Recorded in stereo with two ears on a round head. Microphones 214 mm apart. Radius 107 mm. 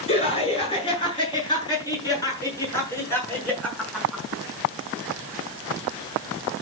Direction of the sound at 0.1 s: 25° left (ahead or behind).